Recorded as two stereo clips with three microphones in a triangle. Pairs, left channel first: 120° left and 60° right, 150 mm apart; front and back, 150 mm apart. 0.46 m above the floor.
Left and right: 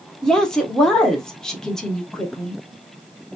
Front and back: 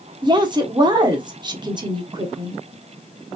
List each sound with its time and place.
0.2 s a woman speaking: 160° right, 0.9 m